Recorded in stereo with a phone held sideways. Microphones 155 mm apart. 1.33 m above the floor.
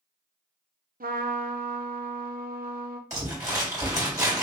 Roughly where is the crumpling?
Right.